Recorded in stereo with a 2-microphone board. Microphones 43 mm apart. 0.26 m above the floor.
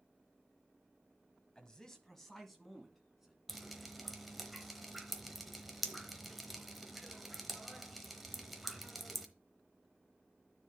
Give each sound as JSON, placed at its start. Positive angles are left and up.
{"t": 1.6, "sound": "a man speaking", "side_deg": 20, "distance_m": 1.2}
{"t": 3.5, "sound": "dripping", "side_deg": 0, "distance_m": 0.9}